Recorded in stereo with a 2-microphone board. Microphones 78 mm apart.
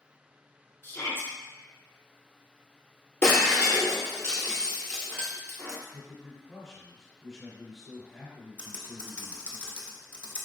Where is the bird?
I don't hear a bird.